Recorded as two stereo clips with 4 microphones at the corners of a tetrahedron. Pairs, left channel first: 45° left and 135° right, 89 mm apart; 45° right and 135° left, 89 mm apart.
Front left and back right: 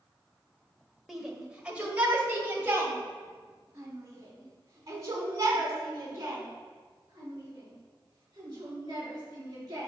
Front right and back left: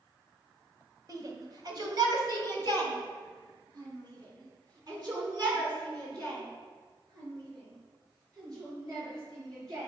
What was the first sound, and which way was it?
A shout, 140° left.